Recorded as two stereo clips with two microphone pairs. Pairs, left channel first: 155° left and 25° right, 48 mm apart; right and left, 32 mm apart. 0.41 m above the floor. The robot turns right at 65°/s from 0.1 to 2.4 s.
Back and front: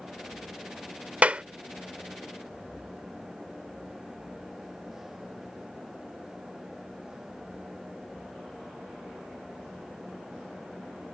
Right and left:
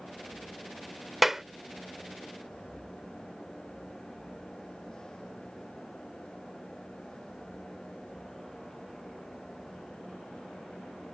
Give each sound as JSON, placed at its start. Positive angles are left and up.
{"t": 1.2, "sound": "a clap", "azimuth_deg": 15}